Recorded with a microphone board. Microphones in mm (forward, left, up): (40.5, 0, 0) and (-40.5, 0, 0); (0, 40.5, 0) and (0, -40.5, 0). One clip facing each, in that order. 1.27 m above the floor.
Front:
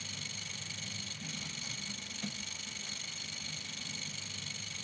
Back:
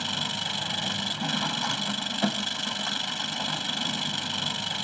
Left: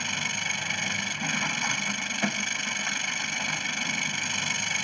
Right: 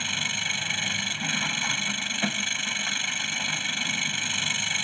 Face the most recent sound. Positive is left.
turn(degrees=170)